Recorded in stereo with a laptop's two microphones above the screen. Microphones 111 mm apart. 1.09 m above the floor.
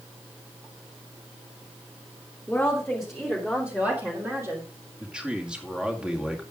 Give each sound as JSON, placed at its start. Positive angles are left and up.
{"t": 2.5, "sound": "a woman speaking", "side_deg": 15, "distance_m": 3.0}
{"t": 5.0, "sound": "a man speaking", "side_deg": -10, "distance_m": 2.0}